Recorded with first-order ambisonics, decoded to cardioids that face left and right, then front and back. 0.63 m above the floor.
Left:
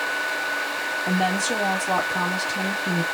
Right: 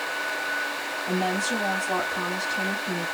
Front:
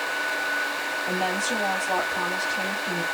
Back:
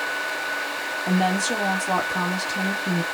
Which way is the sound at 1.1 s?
130° left.